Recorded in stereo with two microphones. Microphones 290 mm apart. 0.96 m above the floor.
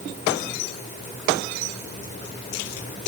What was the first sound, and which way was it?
Only background noise.